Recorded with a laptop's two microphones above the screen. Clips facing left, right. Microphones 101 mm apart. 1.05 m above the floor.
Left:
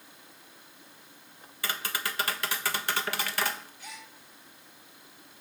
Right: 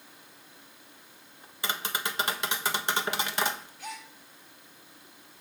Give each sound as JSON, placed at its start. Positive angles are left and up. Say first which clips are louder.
{"t": 1.6, "sound": "tapping", "louder": "right 1 dB", "side_deg": -20, "distance_m": 1.1}
{"t": 3.8, "sound": "a gasp", "louder": "right 5 dB", "side_deg": -70, "distance_m": 2.5}